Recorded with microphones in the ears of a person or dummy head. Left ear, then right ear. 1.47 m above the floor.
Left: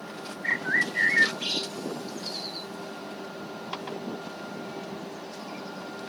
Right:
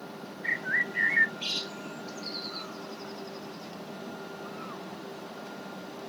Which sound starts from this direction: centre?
A bird, at 0.4 s.